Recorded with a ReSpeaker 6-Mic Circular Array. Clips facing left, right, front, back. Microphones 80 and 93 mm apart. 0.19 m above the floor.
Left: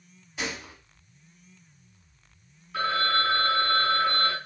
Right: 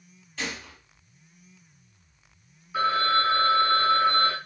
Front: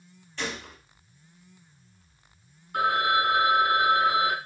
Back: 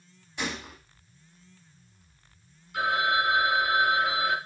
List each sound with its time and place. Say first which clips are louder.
0.4 s a gunshot: left 1 dB, even; 130° left, 1.2 m
2.7 s a phone ringing: right 3 dB, front 2 dB; 15° right, 1.1 m